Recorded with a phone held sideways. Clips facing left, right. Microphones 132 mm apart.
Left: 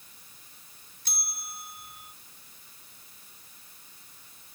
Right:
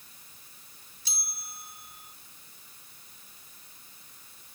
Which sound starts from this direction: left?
A bell, at 1.1 s.